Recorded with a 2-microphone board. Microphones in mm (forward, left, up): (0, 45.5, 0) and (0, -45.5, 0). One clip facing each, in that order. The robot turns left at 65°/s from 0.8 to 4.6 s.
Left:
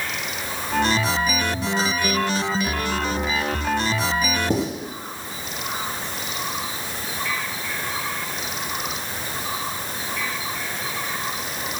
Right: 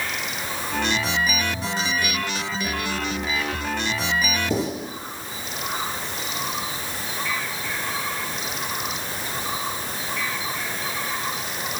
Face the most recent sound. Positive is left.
turn(degrees=55)  # may be behind; listen again after turning